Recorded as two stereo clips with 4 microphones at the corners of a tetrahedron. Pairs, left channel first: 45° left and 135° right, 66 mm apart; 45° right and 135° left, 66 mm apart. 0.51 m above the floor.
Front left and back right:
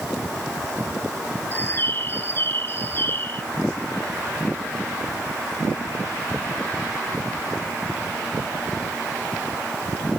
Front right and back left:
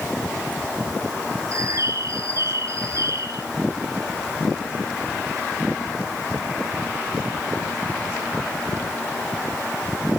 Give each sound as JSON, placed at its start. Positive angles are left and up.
{"t": 1.5, "sound": "a bird", "azimuth_deg": 100, "distance_m": 1.4}